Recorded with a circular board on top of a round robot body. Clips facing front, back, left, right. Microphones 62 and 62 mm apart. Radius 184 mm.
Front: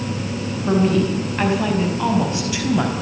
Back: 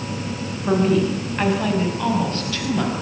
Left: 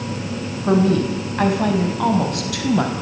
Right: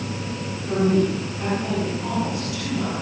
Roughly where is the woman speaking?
Left.